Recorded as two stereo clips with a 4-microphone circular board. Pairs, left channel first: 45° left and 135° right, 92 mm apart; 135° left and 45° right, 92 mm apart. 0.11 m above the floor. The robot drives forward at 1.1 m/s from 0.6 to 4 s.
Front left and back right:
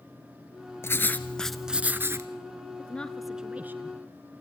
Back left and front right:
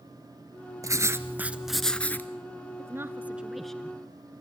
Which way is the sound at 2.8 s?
15° right.